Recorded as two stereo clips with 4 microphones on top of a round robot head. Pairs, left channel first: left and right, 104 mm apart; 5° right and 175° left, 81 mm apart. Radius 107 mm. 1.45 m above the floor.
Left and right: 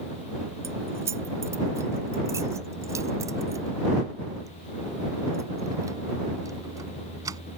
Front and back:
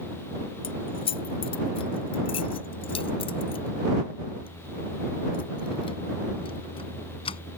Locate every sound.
0.6 s keys jangling: 20° right; by 7.4 s 25° right